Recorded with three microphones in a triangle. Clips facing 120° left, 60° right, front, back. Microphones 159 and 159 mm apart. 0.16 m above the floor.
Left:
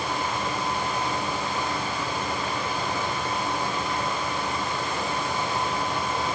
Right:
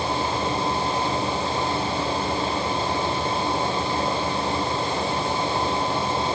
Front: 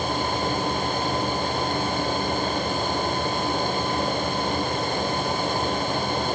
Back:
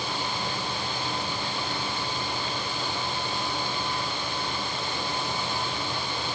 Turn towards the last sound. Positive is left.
No sound to turn to.